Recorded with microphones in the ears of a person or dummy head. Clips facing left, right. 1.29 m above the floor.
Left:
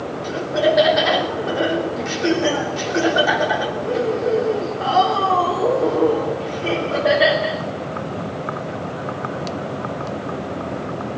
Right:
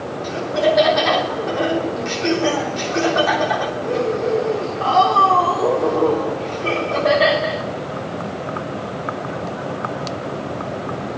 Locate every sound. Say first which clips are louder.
0.2 s laughter: even; 5° left (ahead or behind), 3 m